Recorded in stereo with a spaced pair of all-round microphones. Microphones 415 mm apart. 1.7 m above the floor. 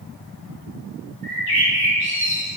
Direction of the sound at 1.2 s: Centre (ahead or behind).